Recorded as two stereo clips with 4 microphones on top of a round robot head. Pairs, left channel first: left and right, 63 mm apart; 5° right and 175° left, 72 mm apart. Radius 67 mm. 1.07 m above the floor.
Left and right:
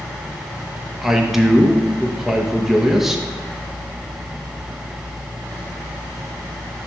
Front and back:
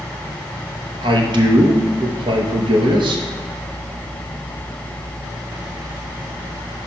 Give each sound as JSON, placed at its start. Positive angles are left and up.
{"t": 1.0, "sound": "a man speaking", "azimuth_deg": -175, "distance_m": 0.9}